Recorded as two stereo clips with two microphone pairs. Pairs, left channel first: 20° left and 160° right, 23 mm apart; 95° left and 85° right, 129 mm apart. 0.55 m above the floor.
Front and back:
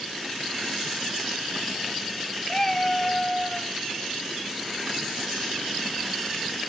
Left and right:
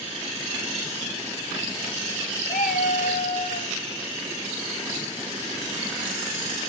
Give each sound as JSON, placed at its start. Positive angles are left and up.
{"t": 2.5, "sound": "a cat meowing", "azimuth_deg": 80, "distance_m": 1.3}